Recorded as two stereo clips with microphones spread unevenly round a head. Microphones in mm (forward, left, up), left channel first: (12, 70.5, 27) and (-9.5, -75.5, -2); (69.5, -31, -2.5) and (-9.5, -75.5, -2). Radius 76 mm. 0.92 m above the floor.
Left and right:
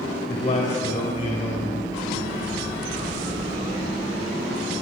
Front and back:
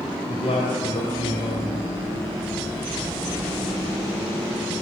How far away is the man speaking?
About 4 m.